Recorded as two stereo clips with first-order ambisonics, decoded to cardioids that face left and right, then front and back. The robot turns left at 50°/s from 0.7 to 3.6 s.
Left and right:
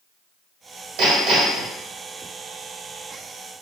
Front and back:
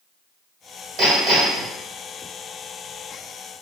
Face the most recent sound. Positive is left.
turn(degrees=105)